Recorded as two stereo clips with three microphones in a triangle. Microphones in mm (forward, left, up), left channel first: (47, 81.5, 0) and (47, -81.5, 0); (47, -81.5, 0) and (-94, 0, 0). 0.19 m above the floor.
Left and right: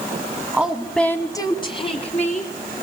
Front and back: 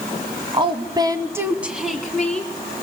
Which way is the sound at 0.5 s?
170° right.